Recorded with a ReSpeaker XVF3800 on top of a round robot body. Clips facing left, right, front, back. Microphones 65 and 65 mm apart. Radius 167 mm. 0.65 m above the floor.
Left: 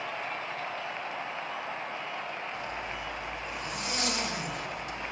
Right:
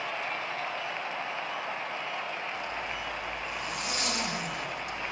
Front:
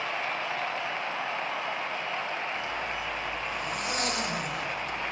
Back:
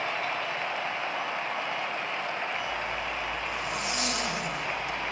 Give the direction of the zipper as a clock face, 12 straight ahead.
11 o'clock.